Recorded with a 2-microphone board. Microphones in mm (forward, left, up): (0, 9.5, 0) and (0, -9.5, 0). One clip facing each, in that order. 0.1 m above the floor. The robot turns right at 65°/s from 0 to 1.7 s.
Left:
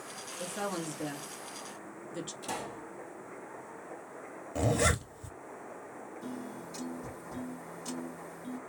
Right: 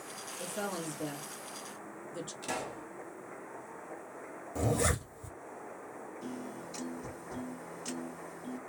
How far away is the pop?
About 1.8 m.